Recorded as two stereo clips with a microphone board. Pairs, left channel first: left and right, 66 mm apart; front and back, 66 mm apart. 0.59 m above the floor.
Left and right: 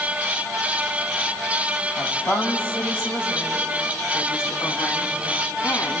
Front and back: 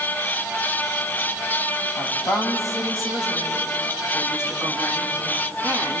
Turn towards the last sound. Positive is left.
turn(degrees=65)